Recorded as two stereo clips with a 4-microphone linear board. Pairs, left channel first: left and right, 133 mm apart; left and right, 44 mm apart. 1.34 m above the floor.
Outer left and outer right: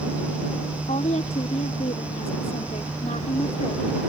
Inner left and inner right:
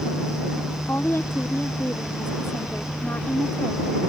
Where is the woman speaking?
60° left (ahead or behind).